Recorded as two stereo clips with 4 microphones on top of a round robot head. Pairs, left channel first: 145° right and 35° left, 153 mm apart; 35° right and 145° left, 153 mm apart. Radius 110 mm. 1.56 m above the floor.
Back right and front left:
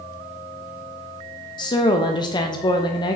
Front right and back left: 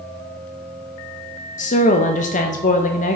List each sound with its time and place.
1.6 s a woman speaking: 80° right, 0.9 m